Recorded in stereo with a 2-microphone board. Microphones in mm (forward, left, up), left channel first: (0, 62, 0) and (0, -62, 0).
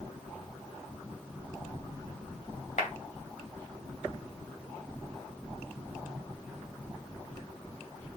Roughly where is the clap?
Left.